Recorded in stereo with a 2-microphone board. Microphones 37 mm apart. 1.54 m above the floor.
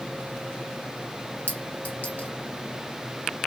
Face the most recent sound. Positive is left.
turn(degrees=45)  # may be behind; listen again after turning